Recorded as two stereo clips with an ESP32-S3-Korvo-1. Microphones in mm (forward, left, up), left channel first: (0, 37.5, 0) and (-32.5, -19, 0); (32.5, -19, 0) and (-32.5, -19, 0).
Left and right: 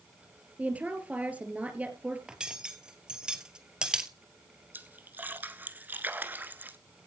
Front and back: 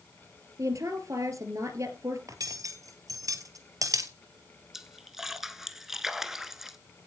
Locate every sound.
0.6 s a woman speaking: straight behind, 2.5 m
2.3 s cutlery clinking: 165° left, 1.5 m
4.7 s a splash: 100° right, 0.9 m